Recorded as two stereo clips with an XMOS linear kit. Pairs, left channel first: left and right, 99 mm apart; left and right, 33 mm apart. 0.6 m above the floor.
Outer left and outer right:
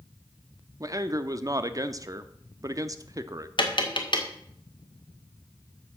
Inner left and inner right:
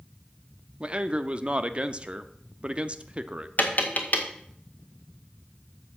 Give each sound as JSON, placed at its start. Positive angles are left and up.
{"t": 0.8, "sound": "a man speaking", "side_deg": -35, "distance_m": 0.7}
{"t": 3.6, "sound": "tapping", "side_deg": 55, "distance_m": 1.8}